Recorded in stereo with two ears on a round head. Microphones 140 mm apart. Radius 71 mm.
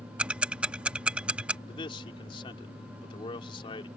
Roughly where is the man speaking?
Left.